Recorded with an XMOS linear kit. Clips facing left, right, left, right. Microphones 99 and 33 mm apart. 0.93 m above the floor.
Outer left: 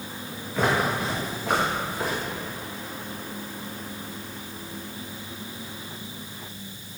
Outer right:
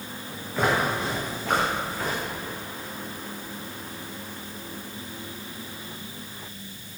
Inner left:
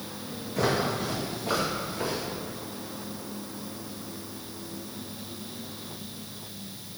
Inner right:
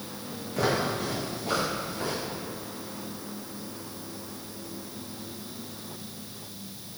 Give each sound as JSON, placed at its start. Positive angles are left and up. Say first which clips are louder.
{"t": 0.6, "sound": "footsteps", "louder": "even, even", "side_deg": 0, "distance_m": 2.5}